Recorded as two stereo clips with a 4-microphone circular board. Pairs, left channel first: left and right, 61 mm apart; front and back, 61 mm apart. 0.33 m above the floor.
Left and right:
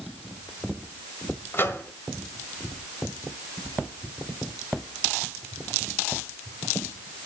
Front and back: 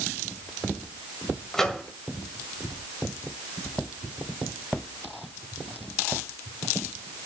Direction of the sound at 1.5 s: 75° left.